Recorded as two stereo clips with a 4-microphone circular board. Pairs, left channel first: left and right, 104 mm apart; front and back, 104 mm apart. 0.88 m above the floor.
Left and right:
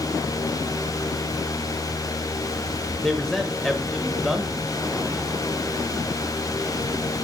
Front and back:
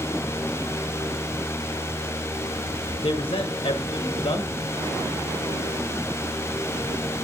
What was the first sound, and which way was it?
A man speaking, 5° left.